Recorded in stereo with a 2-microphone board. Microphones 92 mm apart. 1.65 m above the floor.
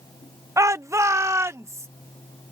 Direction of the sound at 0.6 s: 35° right (ahead or behind).